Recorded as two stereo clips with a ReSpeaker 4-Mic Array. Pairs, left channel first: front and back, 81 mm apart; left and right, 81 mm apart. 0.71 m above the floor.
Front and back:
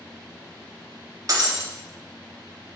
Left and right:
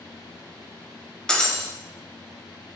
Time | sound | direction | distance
1.3 | breaking glass | 170° left | 0.6 m